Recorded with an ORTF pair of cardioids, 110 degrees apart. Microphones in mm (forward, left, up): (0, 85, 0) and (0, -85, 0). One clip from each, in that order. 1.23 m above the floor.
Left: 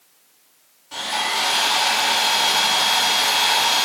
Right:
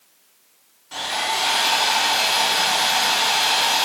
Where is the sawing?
10° right, 1.3 m.